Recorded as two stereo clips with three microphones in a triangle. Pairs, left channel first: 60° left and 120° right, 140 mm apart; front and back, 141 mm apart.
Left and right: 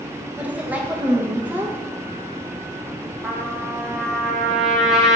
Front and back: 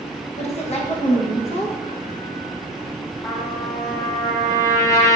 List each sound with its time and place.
0.4 s a woman speaking: 40° right, 0.6 m
3.2 s a trumpet: 35° right, 0.5 m